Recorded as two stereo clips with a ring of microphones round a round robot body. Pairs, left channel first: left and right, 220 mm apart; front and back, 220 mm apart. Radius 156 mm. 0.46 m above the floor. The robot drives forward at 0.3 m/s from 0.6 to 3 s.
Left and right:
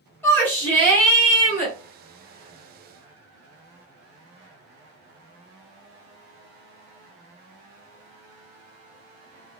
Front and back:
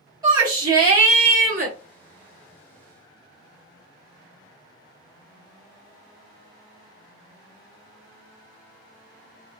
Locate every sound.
0.2 s a shout: 150° left, 1.0 m; by 1.7 s 165° left, 1.1 m